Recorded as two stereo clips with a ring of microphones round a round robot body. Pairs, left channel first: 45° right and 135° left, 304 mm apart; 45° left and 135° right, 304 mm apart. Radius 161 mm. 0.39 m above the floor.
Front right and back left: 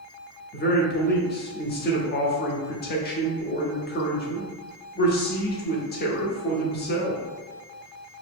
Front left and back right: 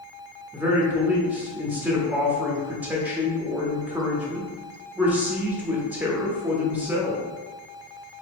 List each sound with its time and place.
0.5 s a man speaking: 55° right, 0.9 m